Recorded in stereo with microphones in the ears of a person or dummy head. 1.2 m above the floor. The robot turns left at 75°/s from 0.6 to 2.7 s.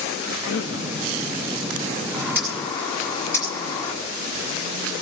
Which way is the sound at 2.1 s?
150° right.